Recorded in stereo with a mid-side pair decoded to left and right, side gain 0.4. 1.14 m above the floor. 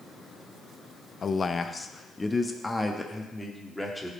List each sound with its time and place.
1.2 s a man speaking: 45° left, 0.6 m; by 4.1 s 10° left, 2.5 m